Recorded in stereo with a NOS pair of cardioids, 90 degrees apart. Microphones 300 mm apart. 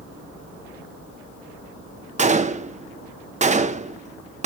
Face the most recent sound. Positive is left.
turn(degrees=-25)